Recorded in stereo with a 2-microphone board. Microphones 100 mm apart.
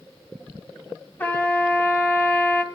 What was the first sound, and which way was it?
A trumpet, 20° left (ahead or behind).